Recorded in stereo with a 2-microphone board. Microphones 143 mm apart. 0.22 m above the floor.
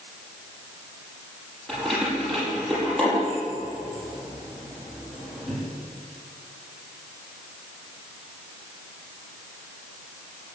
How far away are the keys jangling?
About 5.5 m.